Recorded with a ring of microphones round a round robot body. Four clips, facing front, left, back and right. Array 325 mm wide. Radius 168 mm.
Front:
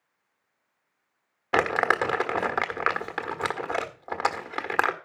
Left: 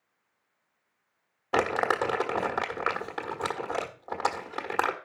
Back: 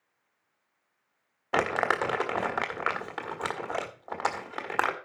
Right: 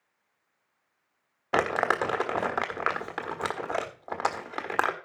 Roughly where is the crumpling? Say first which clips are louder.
Even, front 3 dB; ahead.